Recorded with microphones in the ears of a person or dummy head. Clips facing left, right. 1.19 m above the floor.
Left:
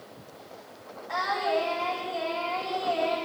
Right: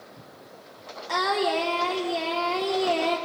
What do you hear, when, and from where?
1.1 s singing: 65° right (ahead or behind), 4 m